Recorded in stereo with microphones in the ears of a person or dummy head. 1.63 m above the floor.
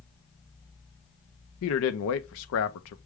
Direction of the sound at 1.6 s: 75° left (ahead or behind).